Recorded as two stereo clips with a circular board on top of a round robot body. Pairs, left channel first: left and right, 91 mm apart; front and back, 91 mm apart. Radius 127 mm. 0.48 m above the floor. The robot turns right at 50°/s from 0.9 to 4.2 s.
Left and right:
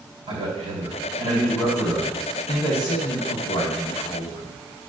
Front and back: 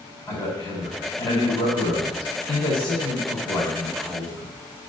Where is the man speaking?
70° right, 3.5 m; by 4.5 s 95° left, 3.5 m.